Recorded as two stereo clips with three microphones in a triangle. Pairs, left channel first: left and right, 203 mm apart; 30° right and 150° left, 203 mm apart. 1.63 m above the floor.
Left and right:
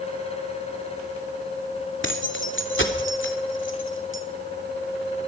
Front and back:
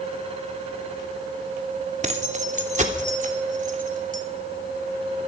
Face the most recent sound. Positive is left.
turn(degrees=100)